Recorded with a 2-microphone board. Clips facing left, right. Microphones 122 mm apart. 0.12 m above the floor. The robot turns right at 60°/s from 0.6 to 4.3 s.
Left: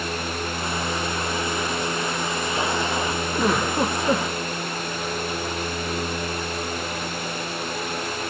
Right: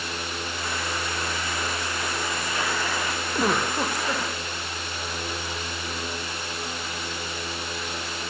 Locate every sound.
3.4 s a giggle: 10° right, 1.2 m; by 4.3 s 45° left, 1.2 m